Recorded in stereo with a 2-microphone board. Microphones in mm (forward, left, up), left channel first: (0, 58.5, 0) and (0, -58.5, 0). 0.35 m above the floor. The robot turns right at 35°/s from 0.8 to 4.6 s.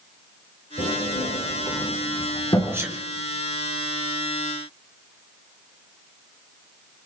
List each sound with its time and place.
0.8 s a sliding door: 75° left (ahead or behind), 5 m; by 2.8 s 30° left (ahead or behind), 5 m
2.7 s a sneeze: 20° right (ahead or behind), 5 m; by 3.0 s 30° right (ahead or behind), 5 m